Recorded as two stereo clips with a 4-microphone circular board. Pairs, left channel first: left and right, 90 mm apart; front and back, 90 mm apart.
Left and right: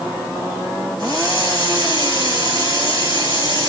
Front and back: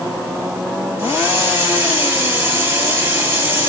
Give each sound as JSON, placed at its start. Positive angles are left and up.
{"t": 1.0, "sound": "a hiss", "azimuth_deg": -125, "distance_m": 2.5}